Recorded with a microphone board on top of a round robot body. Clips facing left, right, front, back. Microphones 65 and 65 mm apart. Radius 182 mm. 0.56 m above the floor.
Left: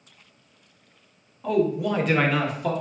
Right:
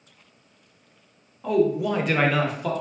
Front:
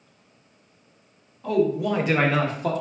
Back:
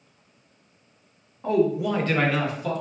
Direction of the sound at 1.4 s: 175° right.